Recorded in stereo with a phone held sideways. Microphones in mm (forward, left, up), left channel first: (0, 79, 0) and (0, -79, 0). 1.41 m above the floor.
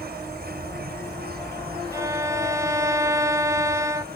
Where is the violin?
20° right (ahead or behind).